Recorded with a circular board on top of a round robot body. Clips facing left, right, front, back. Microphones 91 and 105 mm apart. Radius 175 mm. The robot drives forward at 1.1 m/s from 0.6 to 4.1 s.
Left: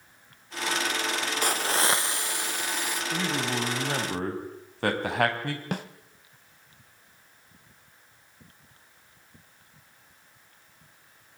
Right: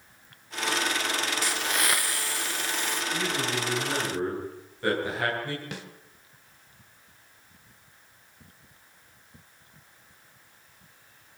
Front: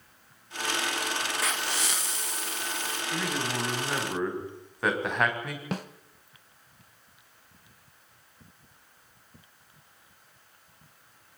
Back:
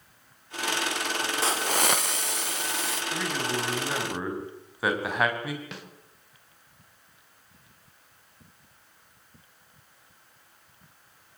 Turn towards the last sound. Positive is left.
turn(degrees=45)